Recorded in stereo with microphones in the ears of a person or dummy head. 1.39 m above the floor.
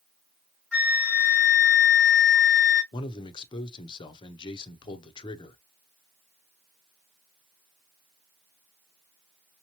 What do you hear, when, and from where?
0.7 s a flute: 5° right (ahead or behind), 1.7 m
2.9 s a man speaking: 25° left (ahead or behind), 0.7 m